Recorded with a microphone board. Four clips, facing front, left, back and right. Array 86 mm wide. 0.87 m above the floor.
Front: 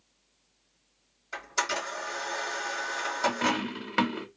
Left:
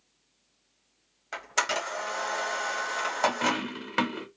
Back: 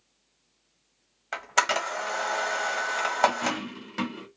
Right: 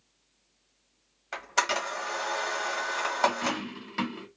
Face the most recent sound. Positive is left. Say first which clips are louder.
# left 2 dB, even
turn(degrees=50)